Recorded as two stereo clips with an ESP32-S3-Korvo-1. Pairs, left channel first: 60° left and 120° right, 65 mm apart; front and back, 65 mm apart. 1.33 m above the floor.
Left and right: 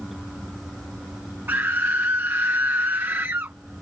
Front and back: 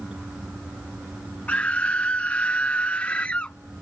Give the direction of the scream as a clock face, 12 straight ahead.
2 o'clock.